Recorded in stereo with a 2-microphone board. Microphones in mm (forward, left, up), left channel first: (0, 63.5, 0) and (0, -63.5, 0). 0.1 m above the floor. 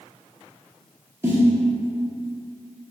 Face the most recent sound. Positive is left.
turn(degrees=-20)  # may be behind; listen again after turning